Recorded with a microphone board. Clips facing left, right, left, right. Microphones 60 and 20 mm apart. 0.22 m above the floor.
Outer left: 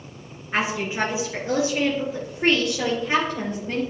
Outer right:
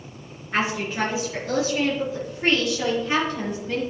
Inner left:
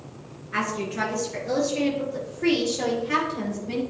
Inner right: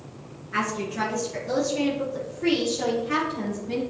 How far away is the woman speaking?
About 3.5 m.